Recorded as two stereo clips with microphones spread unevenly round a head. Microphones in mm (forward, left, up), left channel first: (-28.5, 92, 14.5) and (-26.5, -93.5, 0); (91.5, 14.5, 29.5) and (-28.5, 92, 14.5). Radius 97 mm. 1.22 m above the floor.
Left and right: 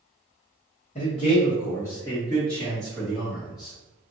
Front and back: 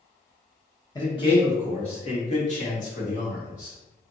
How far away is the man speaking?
About 1.3 m.